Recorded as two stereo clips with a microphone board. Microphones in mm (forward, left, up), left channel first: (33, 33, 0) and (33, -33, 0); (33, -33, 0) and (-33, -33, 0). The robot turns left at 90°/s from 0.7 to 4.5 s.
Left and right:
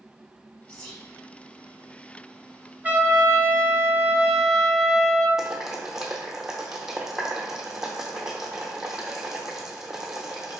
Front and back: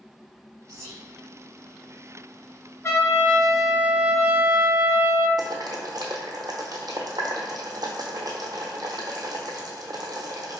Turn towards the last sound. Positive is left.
turn(degrees=-170)